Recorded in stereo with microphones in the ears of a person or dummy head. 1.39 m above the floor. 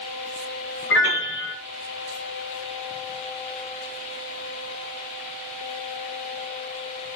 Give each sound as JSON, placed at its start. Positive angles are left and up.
{"t": 0.9, "sound": "a piano", "side_deg": 65, "distance_m": 1.0}